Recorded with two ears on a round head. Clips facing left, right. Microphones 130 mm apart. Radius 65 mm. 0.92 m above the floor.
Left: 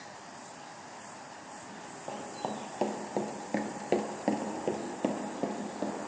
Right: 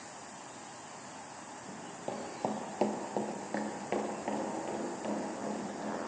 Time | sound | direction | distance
1.7 | running footsteps | 25° right (ahead or behind) | 1.9 m